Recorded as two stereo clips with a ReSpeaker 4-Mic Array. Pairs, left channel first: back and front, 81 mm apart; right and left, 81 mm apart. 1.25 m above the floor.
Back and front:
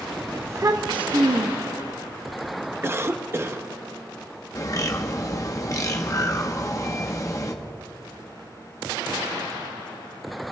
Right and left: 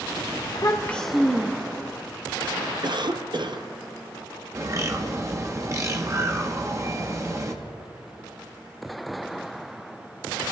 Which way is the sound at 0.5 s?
65° right.